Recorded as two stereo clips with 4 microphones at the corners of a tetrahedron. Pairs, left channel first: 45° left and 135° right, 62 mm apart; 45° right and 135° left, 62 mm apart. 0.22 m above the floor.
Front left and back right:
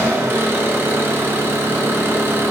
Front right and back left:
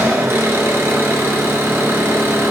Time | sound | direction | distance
0.0 | an engine running | straight behind | 0.8 m